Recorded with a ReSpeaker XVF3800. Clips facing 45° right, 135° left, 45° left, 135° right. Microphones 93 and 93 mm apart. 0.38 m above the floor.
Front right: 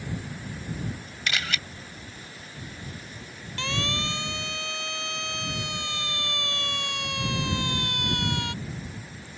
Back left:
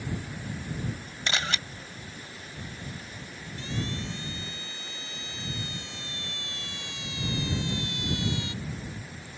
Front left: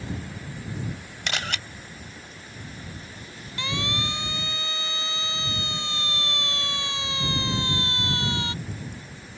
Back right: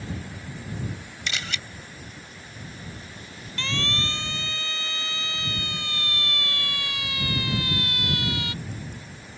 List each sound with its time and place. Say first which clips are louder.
1.3 s a camera shutter: even, front left 3 dB; 75° left
3.6 s a siren: front right 4 dB, even; 30° right; by 8.5 s 15° right